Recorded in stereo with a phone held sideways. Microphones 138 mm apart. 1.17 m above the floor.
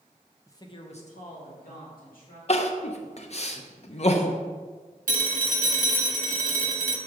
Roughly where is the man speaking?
Centre.